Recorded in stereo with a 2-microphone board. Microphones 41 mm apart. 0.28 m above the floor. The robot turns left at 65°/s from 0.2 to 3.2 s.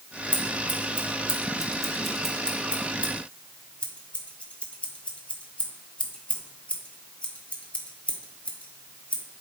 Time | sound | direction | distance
0.3 | scissors | 30° right (ahead or behind) | 1.2 m